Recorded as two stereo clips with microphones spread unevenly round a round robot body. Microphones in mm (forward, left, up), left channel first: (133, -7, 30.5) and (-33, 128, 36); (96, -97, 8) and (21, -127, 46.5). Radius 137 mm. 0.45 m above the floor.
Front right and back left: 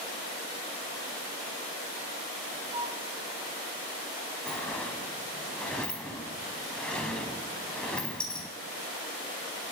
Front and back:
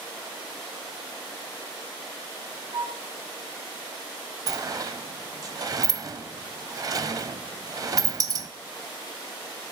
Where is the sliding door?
125° right, 0.5 m.